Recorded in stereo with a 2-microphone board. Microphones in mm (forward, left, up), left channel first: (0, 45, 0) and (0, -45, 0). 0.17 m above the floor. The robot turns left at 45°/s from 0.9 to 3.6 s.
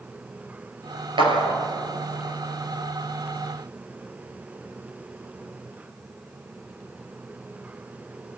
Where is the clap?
65° right (ahead or behind), 3 m; by 1.6 s 55° right (ahead or behind), 3 m.